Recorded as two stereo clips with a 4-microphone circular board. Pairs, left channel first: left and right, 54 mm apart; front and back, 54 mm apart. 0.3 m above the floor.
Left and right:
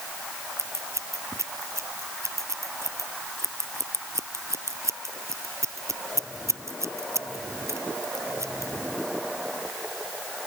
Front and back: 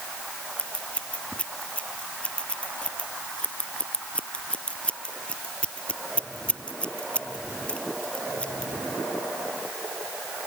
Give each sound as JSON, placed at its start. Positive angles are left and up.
{"t": 0.6, "sound": "scissors", "azimuth_deg": -65}